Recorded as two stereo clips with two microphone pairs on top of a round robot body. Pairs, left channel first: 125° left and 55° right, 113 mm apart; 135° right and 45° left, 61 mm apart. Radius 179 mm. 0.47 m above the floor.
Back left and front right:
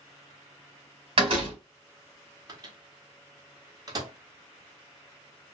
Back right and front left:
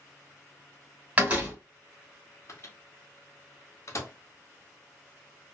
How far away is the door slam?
About 1.6 m.